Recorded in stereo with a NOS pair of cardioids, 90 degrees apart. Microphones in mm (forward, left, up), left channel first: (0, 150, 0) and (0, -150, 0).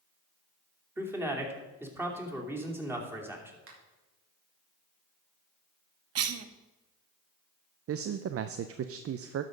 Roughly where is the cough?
Ahead right.